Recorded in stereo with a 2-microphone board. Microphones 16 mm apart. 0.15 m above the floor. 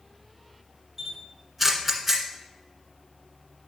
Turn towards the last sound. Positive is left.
turn(degrees=-15)  # may be behind; listen again after turning